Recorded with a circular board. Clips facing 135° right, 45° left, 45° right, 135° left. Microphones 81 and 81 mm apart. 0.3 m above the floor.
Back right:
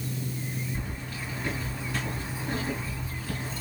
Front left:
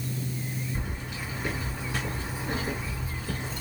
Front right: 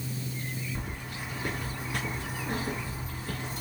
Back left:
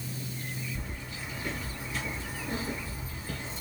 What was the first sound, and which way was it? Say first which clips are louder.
Keys jangling: front left 1 dB, front right 2 dB; 25° right.